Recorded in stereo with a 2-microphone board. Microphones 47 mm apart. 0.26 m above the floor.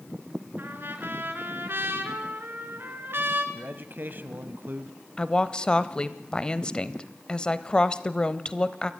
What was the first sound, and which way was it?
A trumpet, 50° right (ahead or behind).